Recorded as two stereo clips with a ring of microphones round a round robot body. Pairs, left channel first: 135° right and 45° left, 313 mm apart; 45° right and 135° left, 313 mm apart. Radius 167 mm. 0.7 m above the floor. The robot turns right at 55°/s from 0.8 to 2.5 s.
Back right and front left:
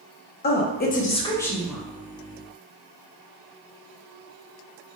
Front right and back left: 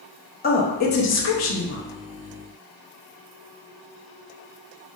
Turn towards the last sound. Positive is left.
turn(degrees=5)